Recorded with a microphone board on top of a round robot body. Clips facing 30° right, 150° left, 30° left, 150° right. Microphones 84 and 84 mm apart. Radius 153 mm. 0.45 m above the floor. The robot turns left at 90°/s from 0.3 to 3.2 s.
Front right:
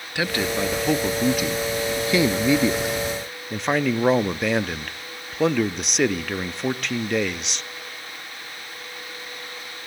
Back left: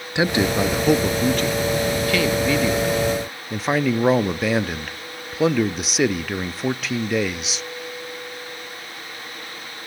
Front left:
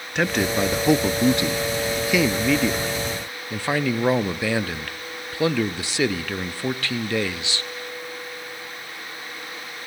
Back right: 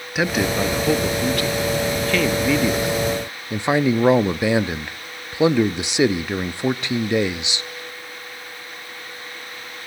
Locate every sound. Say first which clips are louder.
0.1 s a man speaking: back left 5 dB, back right 1 dB; 135° left, 0.7 m; by 7.7 s 125° right, 0.7 m